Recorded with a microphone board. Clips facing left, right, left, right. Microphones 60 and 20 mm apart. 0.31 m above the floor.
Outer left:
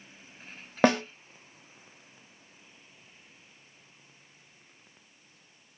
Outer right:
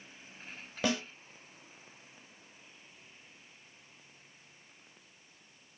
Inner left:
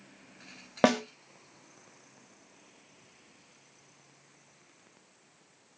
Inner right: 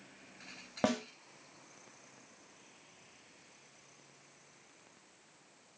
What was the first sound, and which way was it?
A snare drum, 55° left (ahead or behind).